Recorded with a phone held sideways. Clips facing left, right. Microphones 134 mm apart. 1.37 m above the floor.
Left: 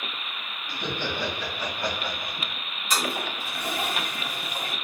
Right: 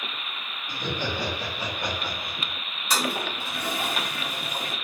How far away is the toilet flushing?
About 2.0 m.